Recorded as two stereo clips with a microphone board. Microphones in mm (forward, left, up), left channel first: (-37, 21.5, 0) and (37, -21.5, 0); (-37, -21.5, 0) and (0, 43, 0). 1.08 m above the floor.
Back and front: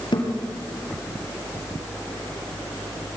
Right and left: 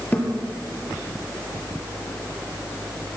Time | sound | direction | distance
0.1 | a thud | 170° left | 4.5 m